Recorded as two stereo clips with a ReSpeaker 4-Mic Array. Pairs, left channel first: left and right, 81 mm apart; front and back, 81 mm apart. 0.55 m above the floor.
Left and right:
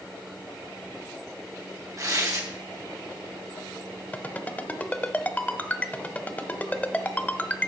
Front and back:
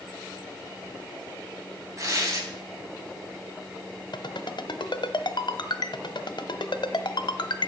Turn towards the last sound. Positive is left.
turn(degrees=20)